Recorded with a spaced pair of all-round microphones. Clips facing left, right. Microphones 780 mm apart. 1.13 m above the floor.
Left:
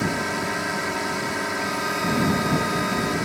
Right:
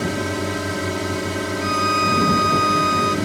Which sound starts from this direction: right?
A drone, at 0.0 s.